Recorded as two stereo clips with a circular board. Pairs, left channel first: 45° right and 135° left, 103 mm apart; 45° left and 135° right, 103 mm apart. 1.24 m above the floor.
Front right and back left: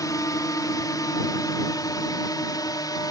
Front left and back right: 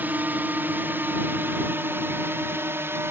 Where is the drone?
75° right; by 3.1 s 80° right.